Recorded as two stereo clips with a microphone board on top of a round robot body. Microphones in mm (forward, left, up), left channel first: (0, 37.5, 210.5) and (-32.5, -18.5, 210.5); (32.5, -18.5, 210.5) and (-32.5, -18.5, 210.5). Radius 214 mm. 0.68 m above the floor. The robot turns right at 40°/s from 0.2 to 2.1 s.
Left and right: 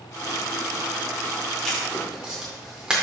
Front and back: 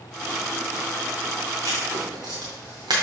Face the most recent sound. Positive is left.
turn(degrees=165)